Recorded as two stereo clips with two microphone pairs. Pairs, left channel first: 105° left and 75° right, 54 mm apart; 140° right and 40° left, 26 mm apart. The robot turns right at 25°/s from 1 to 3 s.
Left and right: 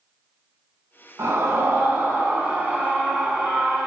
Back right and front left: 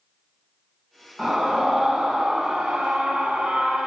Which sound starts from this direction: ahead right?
A scream, at 1.2 s.